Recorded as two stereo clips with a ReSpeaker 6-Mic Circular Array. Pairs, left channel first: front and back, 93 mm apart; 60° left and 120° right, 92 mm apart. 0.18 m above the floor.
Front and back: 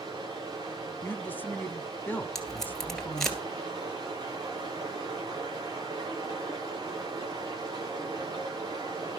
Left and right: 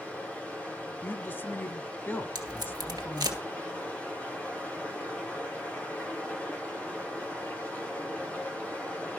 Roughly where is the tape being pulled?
Right.